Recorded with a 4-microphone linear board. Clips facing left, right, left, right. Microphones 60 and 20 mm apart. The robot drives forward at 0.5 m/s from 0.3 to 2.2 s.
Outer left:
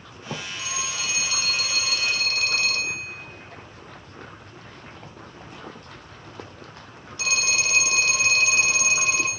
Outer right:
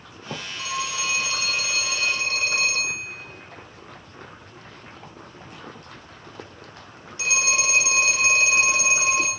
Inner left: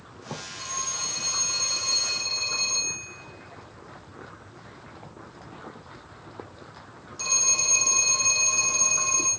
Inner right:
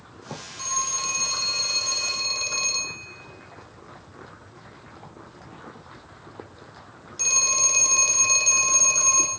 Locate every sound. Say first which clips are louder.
0.6 s a phone ringing: outer right 7 dB, inner right 5 dB; 40° right (ahead or behind), 0.8 m; by 9.3 s 25° right (ahead or behind), 1.2 m